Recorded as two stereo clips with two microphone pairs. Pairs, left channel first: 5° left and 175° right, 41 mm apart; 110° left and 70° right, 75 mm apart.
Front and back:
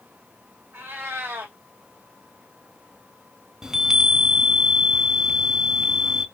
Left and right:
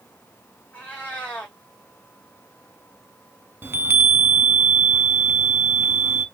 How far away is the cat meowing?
About 2 m.